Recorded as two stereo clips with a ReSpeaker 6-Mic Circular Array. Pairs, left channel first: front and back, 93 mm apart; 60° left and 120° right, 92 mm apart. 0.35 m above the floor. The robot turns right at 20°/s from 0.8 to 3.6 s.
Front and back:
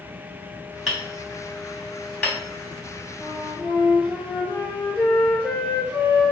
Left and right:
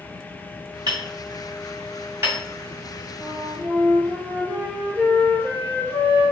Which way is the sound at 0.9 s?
100° right.